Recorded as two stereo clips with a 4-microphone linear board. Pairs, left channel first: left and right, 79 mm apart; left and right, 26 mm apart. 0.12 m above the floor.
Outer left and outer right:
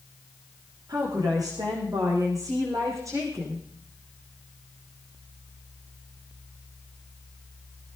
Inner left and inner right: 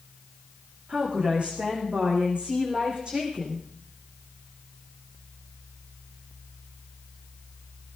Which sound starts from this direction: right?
A woman speaking, at 0.9 s.